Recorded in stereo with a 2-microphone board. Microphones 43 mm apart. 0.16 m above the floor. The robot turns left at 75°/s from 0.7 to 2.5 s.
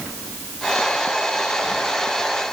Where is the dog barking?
I don't hear a dog barking.